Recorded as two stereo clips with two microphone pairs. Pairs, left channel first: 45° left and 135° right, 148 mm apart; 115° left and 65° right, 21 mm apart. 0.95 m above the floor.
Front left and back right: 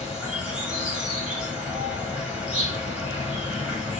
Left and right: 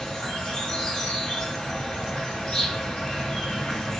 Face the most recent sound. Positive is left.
turn(degrees=140)